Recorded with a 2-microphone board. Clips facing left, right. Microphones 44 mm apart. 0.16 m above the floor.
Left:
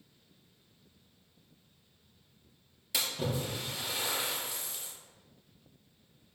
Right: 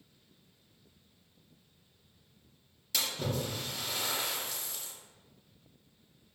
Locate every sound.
2.9 s a splash: 10° left (ahead or behind), 2.5 m